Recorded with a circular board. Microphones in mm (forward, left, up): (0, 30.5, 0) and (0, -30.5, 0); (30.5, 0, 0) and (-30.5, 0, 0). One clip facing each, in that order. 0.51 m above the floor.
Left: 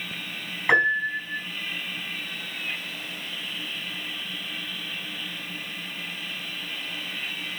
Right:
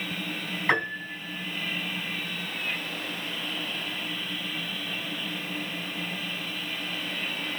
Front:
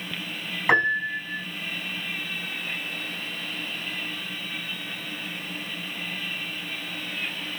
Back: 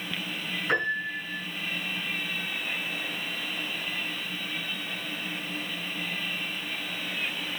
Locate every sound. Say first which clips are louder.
0.7 s a piano: left 7 dB, front 7 dB; 10° left, 4.5 m